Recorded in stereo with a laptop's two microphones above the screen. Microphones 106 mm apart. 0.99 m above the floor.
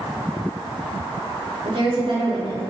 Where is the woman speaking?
55° right (ahead or behind), 2.5 m.